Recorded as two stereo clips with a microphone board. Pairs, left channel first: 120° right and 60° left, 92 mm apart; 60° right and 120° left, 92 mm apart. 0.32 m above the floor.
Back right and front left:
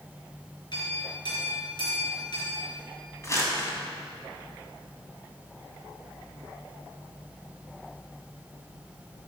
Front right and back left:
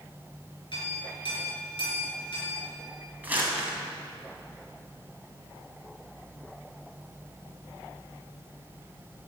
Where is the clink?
90° right, 3.5 m.